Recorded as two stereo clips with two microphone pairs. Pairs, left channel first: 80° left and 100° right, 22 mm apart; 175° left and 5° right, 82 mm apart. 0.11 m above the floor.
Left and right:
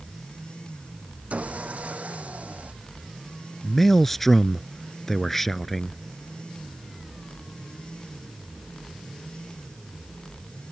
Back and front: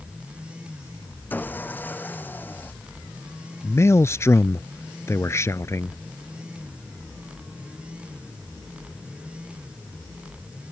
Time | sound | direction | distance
1.3 | sawing | 115° right | ?
3.6 | a man speaking | 155° left | ?